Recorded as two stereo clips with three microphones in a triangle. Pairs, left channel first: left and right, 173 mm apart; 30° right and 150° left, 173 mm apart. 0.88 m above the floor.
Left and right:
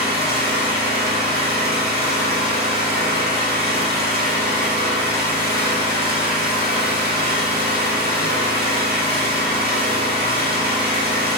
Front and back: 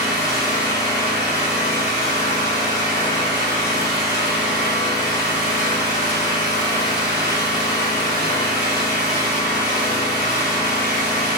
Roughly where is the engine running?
Right.